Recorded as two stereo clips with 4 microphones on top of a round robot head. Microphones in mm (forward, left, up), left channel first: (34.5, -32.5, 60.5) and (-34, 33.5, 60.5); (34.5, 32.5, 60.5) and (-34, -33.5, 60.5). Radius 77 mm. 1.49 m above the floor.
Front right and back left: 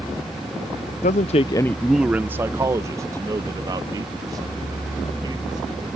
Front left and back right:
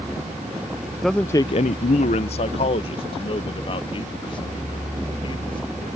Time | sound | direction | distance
1.0 | a man speaking | 45° right | ?